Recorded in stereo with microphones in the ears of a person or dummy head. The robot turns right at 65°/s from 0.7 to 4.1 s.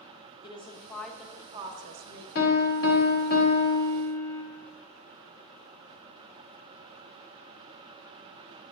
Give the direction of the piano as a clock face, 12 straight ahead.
10 o'clock.